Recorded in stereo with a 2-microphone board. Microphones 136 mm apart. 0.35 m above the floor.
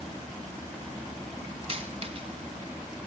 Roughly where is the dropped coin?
Right.